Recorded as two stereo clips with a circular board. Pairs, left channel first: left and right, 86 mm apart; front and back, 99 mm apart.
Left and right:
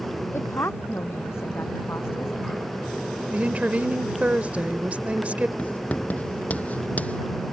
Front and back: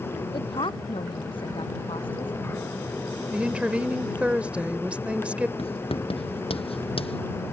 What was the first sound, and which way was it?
A woman speaking, 30° left.